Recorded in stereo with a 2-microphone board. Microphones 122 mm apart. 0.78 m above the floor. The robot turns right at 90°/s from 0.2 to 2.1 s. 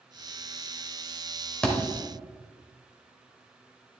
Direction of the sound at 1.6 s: 5° left (ahead or behind).